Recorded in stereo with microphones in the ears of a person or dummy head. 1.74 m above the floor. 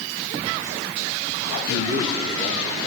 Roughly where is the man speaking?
Left.